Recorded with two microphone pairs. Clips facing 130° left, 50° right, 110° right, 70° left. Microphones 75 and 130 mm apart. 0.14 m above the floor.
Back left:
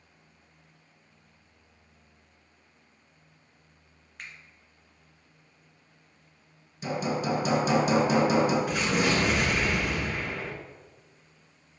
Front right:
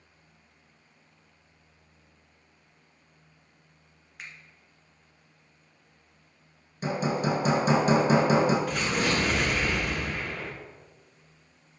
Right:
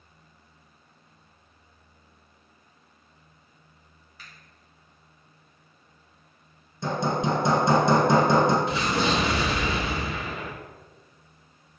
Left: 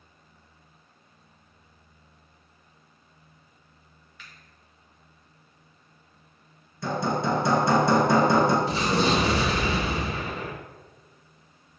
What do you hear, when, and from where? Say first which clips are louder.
4.2 s a finger snap: even, even; 130° right, 1.8 m
6.8 s hammering: front right 1 dB, even; 55° right, 1.8 m
8.7 s an explosion: back left 1 dB, left 1 dB; 50° left, 1.9 m